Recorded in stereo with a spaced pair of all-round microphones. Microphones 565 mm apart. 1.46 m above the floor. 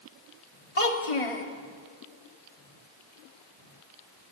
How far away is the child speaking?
About 1.9 m.